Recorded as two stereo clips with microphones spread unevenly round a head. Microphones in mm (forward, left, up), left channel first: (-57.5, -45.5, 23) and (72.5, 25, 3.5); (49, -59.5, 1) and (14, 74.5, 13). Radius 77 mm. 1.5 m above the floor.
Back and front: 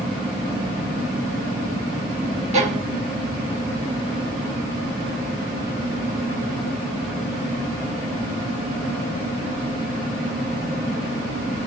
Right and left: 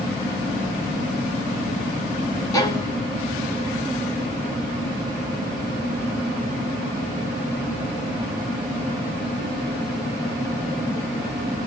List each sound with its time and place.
2.5 s a violin: 15° right, 0.9 m